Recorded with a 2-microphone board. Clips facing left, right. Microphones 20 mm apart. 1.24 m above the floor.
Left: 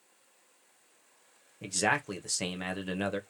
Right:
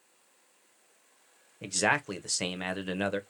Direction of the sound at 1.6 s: 15° right (ahead or behind).